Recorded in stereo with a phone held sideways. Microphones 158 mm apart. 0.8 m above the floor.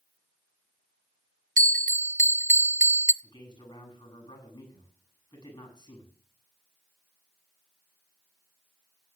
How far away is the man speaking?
About 8.5 m.